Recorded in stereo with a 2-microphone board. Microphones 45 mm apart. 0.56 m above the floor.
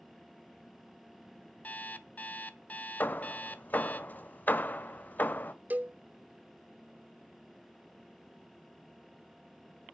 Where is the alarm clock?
40° left (ahead or behind), 0.9 m.